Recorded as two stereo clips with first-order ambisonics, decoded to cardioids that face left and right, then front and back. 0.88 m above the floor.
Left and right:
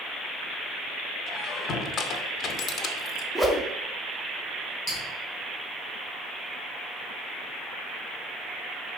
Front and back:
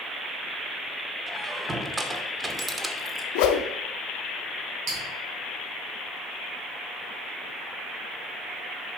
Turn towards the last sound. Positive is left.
turn(degrees=155)